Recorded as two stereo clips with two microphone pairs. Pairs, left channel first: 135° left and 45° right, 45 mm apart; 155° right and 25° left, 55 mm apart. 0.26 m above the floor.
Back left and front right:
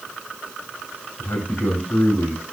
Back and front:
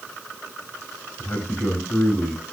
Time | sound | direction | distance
1.2 | a man speaking | 165° left | 2.5 m